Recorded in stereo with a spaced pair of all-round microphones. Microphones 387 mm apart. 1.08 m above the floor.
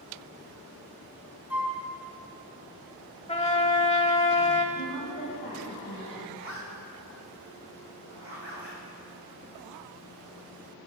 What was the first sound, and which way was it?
A flute, 5° right (ahead or behind).